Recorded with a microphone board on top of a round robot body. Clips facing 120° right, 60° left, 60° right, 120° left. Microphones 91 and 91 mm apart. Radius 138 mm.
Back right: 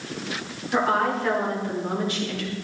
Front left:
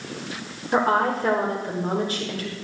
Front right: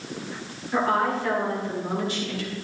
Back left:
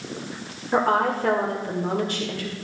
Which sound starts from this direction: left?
A woman speaking, at 0.7 s.